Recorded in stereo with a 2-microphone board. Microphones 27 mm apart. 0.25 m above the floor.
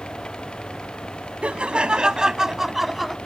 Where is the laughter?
45° right (ahead or behind); by 3.2 s centre (ahead or behind).